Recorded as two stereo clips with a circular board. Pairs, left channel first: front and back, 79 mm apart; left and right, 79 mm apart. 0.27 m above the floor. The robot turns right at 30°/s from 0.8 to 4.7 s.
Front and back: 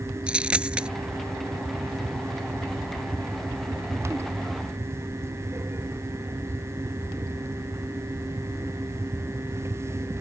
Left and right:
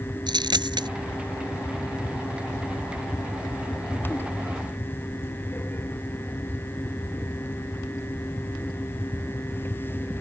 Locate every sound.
0.3 s a dropped coin: 105° right; by 0.9 s 100° right